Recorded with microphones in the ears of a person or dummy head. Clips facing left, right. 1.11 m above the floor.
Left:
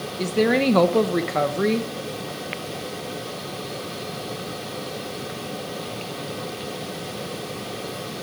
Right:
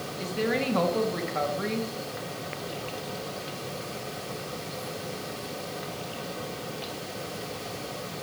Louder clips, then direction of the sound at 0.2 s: Left 9 dB; 65° left (ahead or behind).